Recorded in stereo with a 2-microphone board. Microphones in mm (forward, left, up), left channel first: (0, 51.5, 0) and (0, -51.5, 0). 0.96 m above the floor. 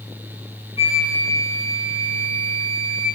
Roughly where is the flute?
Left.